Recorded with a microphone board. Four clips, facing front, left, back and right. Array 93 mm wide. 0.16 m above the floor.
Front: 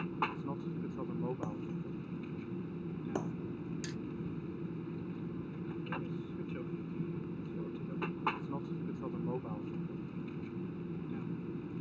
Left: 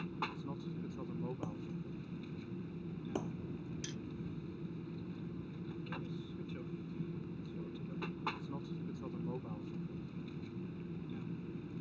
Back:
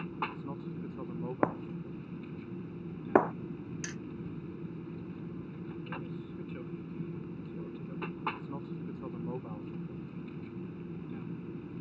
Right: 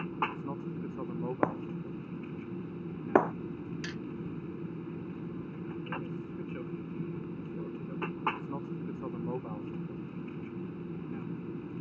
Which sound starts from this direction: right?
An aircraft, at 0.0 s.